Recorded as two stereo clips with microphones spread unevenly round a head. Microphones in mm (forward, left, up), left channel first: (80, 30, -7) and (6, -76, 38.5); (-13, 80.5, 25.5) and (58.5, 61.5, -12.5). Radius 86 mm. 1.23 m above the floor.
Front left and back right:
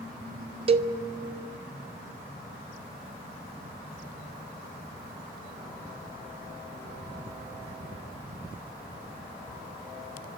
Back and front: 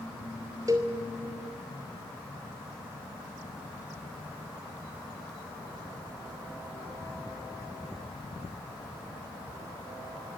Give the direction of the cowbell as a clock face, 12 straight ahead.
3 o'clock.